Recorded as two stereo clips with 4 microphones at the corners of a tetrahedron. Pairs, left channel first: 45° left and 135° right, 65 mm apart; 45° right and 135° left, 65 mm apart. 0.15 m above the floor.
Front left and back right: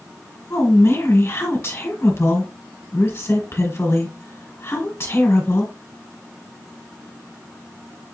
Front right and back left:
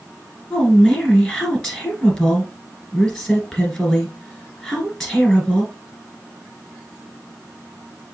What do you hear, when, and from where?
0.5 s a woman speaking: 40° left, 2 m